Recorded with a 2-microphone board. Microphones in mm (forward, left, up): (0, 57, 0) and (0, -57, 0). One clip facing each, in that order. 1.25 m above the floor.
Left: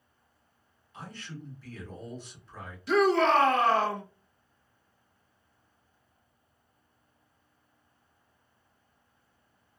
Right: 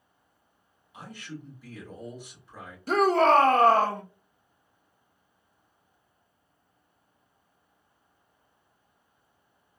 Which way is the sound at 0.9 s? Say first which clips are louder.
Right 2 dB; 15° right (ahead or behind).